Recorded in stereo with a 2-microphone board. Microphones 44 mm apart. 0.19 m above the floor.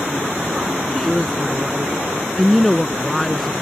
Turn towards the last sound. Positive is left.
turn(degrees=5)  # may be behind; listen again after turning